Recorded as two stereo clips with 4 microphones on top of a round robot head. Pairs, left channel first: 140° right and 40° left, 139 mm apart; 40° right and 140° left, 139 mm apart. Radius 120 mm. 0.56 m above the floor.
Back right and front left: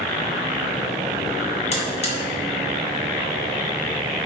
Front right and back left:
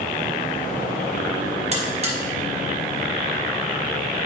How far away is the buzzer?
About 1.6 m.